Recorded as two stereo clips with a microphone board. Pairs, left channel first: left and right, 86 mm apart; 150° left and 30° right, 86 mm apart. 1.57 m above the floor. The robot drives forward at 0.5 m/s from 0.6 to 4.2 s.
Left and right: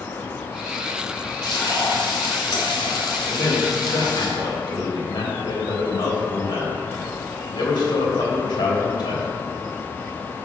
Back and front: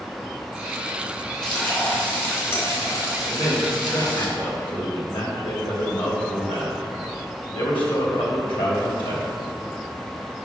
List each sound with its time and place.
1.4 s frying: 70° left, 1.8 m; by 4.3 s 125° left, 2.0 m
3.3 s a man speaking: 115° left, 2.0 m; by 9.2 s 125° left, 2 m